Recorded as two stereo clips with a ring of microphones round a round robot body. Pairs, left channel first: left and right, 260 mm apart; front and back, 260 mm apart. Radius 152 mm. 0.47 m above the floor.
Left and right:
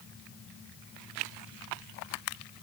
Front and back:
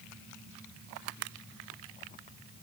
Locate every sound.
Only background noise.